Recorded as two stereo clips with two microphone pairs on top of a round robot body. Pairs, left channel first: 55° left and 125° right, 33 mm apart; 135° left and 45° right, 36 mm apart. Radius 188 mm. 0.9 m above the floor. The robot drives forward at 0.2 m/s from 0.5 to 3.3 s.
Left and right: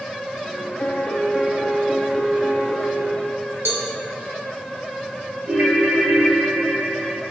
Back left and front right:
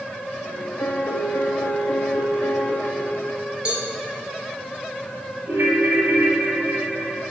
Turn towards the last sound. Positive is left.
turn(degrees=-85)